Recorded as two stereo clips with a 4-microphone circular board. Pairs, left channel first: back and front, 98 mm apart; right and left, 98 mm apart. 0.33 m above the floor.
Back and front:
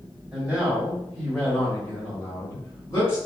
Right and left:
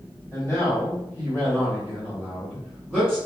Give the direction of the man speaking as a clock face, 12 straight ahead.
2 o'clock.